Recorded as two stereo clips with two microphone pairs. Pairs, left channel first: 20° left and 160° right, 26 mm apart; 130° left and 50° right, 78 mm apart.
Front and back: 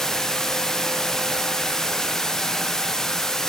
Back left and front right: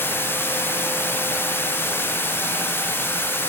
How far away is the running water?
About 0.7 m.